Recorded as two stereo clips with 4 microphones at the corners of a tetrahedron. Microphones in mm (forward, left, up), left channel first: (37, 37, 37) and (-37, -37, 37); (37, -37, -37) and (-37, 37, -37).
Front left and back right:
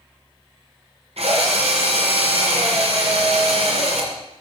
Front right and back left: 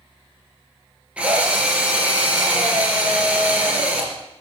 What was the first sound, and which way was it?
A drill, 145° right.